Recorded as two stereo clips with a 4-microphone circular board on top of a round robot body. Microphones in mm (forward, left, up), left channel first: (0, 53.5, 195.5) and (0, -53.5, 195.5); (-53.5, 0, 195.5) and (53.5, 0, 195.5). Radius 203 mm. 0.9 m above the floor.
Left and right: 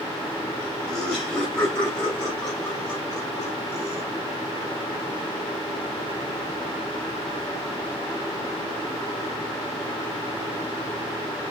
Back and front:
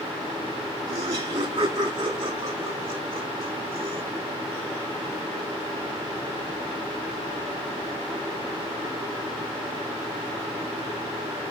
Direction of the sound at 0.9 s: 5° left.